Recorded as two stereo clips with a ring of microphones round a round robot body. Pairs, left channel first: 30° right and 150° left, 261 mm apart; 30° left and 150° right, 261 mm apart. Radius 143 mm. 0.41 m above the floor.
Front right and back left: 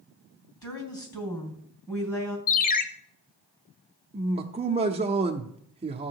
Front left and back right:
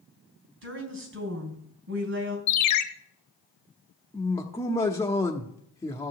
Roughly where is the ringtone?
Ahead left.